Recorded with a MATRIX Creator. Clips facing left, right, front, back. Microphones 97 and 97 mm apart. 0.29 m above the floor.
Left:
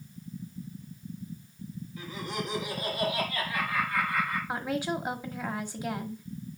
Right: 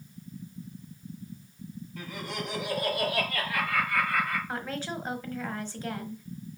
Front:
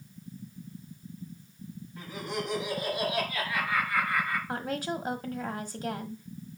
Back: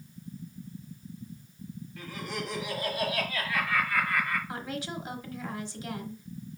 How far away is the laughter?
About 5 m.